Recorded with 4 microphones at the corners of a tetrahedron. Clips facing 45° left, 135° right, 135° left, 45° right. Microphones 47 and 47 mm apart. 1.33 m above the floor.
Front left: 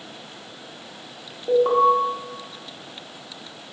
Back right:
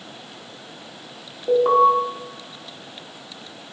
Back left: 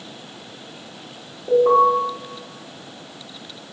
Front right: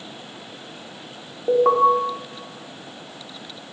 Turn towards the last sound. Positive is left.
turn(degrees=-55)